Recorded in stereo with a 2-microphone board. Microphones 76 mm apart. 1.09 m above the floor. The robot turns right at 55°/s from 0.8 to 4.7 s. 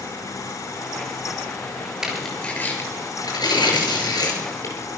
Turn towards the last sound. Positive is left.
turn(degrees=40)  # may be behind; listen again after turning